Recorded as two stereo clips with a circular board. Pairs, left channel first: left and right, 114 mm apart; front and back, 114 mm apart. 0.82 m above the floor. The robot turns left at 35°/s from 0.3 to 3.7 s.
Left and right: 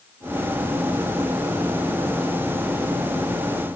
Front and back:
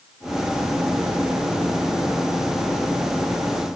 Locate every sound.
Only background noise.